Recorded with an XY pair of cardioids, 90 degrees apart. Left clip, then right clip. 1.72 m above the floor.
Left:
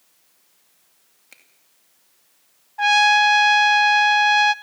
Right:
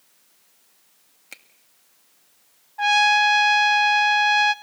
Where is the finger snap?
45° right, 2 m.